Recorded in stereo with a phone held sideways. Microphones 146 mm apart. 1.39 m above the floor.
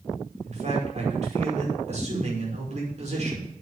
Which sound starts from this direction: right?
A man speaking, at 0.4 s.